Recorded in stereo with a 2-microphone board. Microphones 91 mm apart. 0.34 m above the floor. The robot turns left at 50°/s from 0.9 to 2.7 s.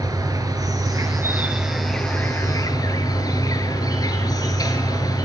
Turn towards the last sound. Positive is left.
turn(degrees=135)